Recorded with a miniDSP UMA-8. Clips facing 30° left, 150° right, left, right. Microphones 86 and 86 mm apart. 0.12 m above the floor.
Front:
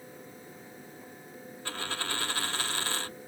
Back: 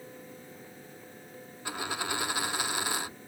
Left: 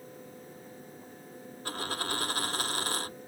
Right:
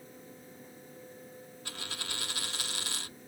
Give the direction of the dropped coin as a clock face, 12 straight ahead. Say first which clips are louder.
Back 2 dB, left 10 dB; 8 o'clock.